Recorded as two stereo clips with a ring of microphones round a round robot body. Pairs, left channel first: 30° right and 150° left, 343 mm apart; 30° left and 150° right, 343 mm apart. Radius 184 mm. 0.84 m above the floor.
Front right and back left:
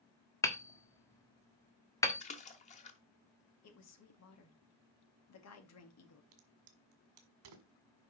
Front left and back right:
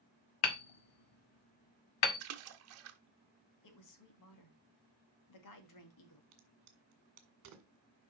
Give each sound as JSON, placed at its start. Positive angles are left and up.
{"t": 0.4, "sound": "hammering", "azimuth_deg": 50, "distance_m": 1.3}
{"t": 2.2, "sound": "a splash", "azimuth_deg": -100, "distance_m": 1.1}
{"t": 3.6, "sound": "a woman speaking", "azimuth_deg": 10, "distance_m": 2.0}
{"t": 6.3, "sound": "a crack", "azimuth_deg": 165, "distance_m": 1.9}